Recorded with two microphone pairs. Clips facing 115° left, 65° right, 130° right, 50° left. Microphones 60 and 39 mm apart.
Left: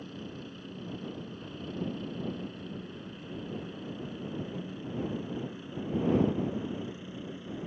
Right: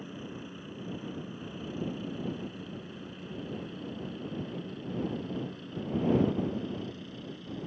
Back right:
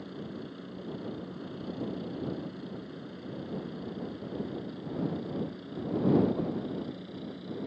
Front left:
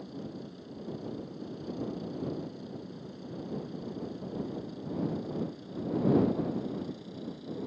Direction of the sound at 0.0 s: 130° right.